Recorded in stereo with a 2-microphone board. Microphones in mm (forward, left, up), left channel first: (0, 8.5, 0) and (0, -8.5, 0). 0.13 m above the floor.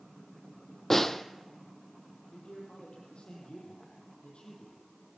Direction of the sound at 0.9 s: 15° left (ahead or behind).